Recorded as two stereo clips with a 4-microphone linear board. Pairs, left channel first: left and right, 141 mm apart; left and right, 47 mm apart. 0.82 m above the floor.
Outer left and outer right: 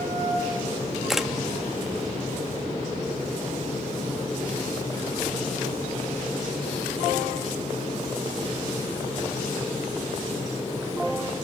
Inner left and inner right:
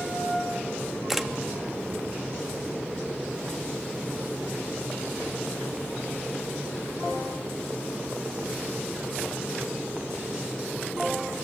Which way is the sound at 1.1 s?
Centre (ahead or behind).